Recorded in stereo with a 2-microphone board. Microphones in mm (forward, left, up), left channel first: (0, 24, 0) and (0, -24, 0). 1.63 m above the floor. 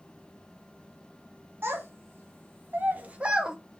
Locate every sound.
1.6 s a child speaking: 50° right (ahead or behind), 1.3 m; by 3.6 s 10° right (ahead or behind), 0.6 m